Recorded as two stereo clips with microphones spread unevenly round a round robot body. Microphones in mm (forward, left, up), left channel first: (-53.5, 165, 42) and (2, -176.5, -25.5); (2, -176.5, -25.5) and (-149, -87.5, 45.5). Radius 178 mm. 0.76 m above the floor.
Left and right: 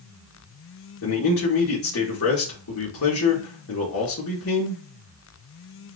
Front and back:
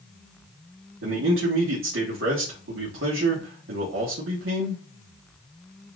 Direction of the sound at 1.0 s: 155° left.